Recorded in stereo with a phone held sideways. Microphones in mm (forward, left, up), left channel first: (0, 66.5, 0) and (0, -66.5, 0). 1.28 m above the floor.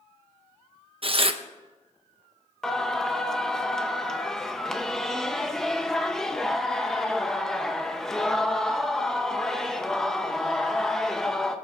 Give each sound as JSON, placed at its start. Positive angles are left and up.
{"t": 1.0, "sound": "tearing paper", "side_deg": -45, "distance_m": 0.7}
{"t": 2.6, "sound": "singing", "side_deg": 5, "distance_m": 0.8}